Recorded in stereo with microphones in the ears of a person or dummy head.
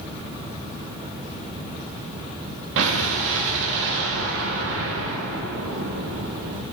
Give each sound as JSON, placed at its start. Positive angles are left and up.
{"t": 2.8, "sound": "an explosion", "side_deg": -70, "distance_m": 1.3}